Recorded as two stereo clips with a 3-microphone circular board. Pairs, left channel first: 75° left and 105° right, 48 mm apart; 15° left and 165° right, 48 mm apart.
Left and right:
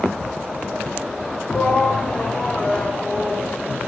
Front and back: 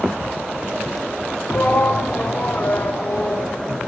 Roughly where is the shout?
Ahead.